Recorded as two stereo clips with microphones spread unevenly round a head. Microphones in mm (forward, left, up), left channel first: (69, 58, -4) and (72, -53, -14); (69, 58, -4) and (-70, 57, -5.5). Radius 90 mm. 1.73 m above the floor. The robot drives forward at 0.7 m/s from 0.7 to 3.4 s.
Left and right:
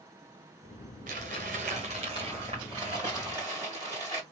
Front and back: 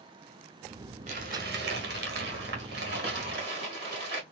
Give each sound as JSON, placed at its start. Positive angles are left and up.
{"t": 1.1, "sound": "crumpling", "azimuth_deg": -125, "distance_m": 0.8}